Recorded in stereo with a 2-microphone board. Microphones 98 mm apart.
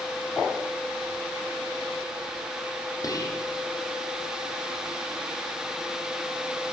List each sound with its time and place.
3.0 s whispering: 40° left (ahead or behind), 5.5 m